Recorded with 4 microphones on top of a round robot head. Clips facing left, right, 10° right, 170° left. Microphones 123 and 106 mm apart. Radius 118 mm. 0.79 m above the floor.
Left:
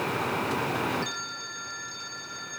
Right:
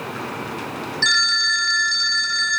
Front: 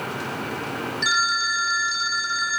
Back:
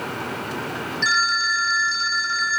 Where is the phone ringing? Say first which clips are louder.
Right 11 dB, back 3 dB; 85° right.